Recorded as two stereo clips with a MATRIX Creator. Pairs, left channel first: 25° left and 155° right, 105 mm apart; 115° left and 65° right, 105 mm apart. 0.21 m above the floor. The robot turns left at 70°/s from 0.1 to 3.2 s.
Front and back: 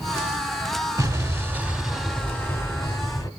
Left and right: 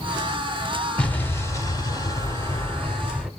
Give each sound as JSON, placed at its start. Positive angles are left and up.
{"t": 1.0, "sound": "an explosion", "azimuth_deg": -175, "distance_m": 0.9}